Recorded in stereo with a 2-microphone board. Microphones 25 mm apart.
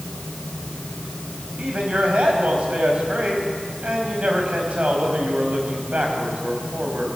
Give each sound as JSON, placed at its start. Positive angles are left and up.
{"t": 1.6, "sound": "a man speaking", "side_deg": -60, "distance_m": 5.0}